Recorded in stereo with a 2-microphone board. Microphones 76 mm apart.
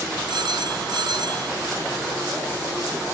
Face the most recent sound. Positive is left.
turn(degrees=-80)